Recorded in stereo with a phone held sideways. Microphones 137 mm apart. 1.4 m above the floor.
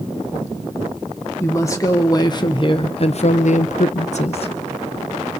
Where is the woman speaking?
20° left (ahead or behind), 1.5 m; by 4.6 s 45° left (ahead or behind), 0.8 m.